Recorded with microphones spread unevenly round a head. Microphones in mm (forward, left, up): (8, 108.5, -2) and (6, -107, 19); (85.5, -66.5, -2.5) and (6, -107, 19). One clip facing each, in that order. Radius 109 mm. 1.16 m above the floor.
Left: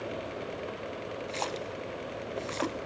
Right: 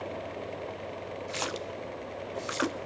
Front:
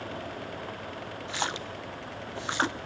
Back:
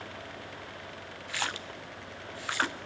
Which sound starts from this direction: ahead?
A splash, at 1.3 s.